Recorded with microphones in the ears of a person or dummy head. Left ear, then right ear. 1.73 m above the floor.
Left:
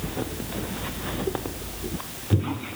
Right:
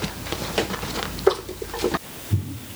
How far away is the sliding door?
I don't hear a sliding door.